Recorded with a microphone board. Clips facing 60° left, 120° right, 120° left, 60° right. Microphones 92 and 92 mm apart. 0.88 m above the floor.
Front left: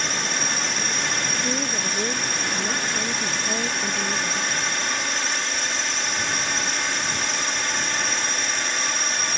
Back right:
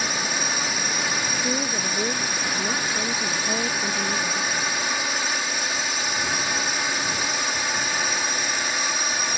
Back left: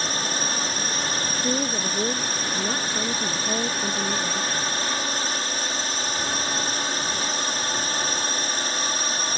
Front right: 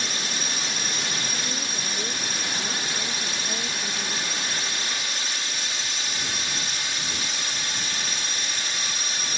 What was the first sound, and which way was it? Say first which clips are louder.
A drone: even, back left 4 dB; 155° left.